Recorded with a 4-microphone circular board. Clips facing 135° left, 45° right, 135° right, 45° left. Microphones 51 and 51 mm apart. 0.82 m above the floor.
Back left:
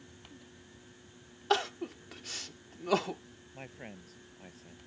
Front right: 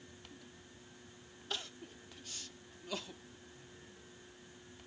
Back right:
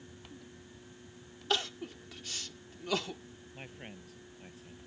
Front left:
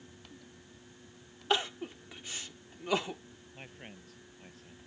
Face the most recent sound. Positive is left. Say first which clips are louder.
# back left 9 dB, back right 1 dB
turn(degrees=140)